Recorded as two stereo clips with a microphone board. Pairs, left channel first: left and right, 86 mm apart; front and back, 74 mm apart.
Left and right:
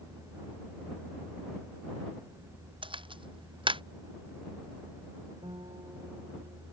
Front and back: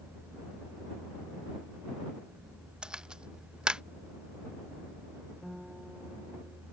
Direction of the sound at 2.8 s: 100° right.